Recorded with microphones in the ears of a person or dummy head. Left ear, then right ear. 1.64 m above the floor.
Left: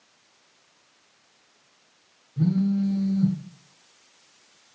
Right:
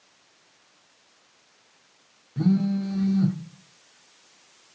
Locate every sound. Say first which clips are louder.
2.4 s a phone buzzing: even; 75° right (ahead or behind), 0.5 m